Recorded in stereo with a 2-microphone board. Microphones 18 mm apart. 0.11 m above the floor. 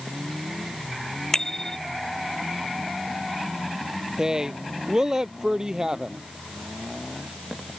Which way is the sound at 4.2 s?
30° right (ahead or behind).